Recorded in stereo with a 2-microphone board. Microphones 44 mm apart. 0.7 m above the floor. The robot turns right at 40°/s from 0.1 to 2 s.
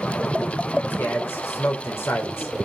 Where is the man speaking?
50° left, 2.5 m; by 2.7 s 95° left, 2.5 m.